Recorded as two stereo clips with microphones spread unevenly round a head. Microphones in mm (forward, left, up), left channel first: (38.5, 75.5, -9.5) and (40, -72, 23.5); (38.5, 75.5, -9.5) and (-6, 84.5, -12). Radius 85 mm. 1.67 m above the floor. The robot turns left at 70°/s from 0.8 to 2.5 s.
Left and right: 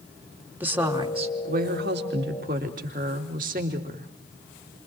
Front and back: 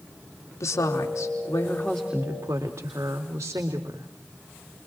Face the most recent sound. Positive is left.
turn(degrees=-135)